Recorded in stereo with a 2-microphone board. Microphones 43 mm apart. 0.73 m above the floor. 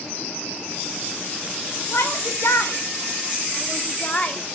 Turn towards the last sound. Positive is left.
turn(degrees=20)  # may be behind; listen again after turning